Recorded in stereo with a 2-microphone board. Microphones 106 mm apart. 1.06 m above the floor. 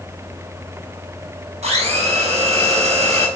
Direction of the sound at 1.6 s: 80° right.